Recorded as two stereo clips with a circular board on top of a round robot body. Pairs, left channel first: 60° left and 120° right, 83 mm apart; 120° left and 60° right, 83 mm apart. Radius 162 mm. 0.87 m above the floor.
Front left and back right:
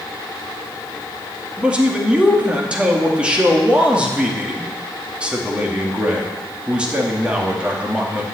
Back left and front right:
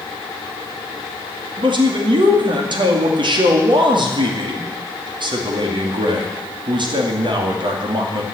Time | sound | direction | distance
1.6 | a man speaking | 40° right | 2.5 m